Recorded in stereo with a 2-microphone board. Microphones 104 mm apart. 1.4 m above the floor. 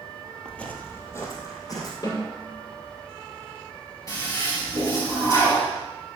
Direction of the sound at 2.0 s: 40° left (ahead or behind).